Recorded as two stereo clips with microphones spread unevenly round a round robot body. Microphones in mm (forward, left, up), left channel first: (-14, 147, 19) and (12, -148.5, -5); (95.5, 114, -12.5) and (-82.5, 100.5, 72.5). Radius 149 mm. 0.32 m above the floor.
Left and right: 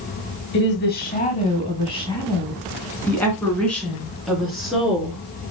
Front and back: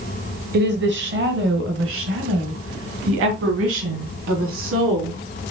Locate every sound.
0.5 s a woman speaking: 145° left, 1.6 m; by 5.2 s 170° right, 4 m